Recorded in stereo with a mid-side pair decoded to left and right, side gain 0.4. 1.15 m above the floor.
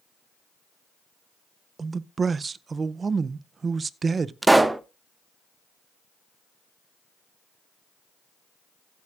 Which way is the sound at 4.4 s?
15° right.